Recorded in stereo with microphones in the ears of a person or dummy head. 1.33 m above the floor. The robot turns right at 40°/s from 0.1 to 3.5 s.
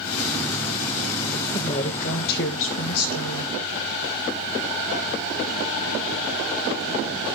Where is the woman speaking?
30° left, 1.8 m; by 3.5 s 105° left, 1.8 m.